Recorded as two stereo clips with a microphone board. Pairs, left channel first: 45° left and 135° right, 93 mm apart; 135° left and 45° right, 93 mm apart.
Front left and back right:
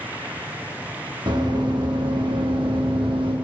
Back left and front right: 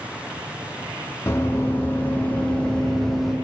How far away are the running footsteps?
About 3 m.